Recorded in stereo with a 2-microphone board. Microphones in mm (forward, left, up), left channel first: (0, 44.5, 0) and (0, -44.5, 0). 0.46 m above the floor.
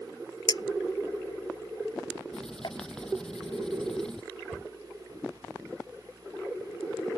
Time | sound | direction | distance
0.5 | a clink | 55° left (ahead or behind) | ?
2.3 | writing | 5° left (ahead or behind) | ?
4.5 | a cupboard door | 20° left (ahead or behind) | ?